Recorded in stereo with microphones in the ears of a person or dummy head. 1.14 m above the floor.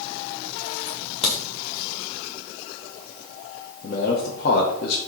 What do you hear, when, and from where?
0.9 s a crack: 30° left (ahead or behind), 1.5 m
3.8 s a man speaking: 50° left (ahead or behind), 1.0 m